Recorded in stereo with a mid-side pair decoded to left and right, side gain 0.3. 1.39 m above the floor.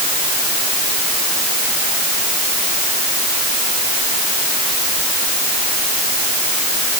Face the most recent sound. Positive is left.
No sound to turn to.